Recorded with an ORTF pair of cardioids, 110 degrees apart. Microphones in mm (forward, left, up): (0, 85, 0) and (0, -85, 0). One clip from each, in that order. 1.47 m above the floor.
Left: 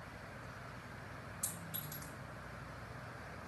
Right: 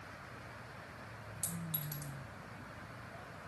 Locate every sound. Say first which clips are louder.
1.4 s a clink: right 3 dB; 45° right, 1.4 m